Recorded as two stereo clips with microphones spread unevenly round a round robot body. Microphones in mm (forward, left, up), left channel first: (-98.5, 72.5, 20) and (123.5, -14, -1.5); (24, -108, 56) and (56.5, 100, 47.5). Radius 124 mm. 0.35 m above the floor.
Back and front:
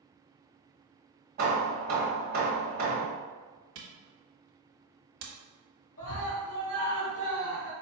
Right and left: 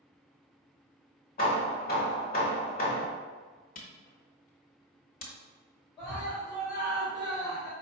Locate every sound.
1.4 s hammering: 60° right, 1.4 m
3.8 s a camera shutter: 50° right, 1.1 m
6.0 s a scream: 170° right, 1.9 m